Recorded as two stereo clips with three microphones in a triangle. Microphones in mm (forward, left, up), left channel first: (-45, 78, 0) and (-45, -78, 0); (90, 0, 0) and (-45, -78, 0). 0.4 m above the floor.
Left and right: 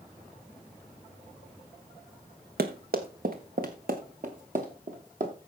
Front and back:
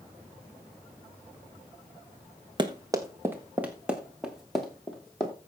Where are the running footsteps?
90° right, 1.3 m; by 5.3 s 55° right, 3 m.